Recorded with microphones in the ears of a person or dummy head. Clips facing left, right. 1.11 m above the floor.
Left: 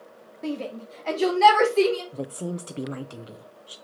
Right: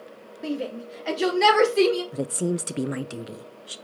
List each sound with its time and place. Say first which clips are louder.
0.4 s a shout: right 1 dB; 10° right (ahead or behind), 2.5 m; by 2.0 s 15° right (ahead or behind), 4 m
2.1 s a woman speaking: right 6 dB; 20° right (ahead or behind), 0.5 m